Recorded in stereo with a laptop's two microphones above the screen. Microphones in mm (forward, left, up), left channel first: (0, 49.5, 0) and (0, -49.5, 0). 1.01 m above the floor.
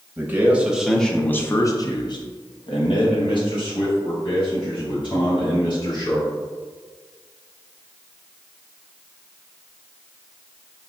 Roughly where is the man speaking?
Right.